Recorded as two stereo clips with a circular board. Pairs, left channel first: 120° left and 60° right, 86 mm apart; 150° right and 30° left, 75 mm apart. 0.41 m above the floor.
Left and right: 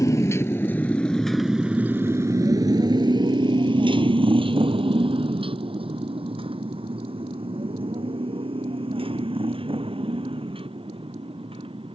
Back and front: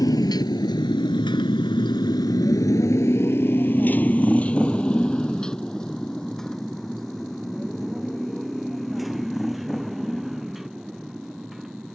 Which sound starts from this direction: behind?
A motorcycle, at 0.0 s.